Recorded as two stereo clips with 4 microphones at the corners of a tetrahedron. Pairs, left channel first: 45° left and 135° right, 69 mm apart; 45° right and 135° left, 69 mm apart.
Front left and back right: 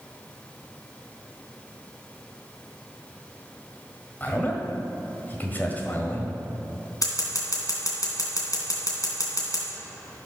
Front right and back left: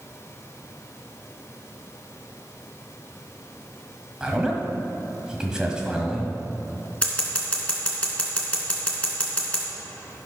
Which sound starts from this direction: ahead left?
Scissors, at 7.0 s.